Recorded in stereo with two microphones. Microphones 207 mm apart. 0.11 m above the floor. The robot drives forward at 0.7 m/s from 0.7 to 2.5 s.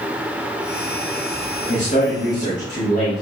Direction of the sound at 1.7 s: 40° left (ahead or behind).